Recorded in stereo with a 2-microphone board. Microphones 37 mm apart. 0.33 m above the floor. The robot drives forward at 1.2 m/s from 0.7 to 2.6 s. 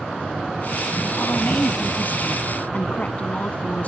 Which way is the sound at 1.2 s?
60° left (ahead or behind).